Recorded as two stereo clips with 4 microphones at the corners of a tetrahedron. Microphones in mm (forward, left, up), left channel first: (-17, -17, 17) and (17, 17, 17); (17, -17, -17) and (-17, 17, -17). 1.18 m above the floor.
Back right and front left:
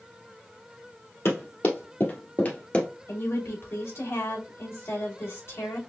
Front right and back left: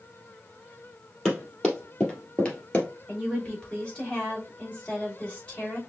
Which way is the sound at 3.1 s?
115° right.